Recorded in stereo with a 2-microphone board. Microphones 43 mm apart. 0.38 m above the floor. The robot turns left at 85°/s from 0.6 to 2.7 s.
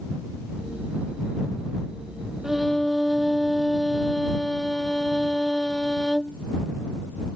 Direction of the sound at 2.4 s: 15° right (ahead or behind).